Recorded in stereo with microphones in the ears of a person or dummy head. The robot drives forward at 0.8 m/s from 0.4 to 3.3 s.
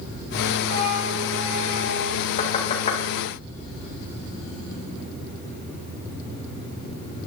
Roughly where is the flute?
Right.